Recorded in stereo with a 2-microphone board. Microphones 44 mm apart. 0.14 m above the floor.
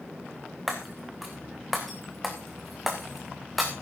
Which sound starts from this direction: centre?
Breaking glass, at 0.7 s.